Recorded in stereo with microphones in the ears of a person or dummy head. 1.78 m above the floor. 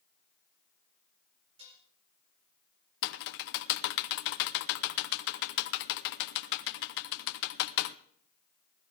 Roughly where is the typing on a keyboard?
Left.